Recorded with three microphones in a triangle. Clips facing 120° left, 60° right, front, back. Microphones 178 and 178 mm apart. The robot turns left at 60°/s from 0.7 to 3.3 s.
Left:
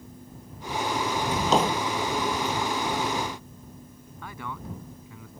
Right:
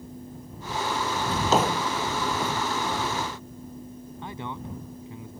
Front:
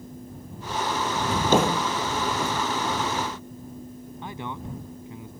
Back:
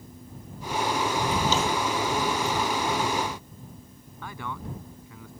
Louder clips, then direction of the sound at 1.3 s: Even, front 4 dB; 45° left.